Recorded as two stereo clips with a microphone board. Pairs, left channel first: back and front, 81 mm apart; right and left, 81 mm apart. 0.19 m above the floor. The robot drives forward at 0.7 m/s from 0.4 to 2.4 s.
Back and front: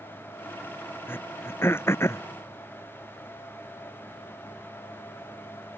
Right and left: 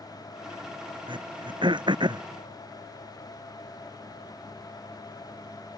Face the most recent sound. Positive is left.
turn(degrees=120)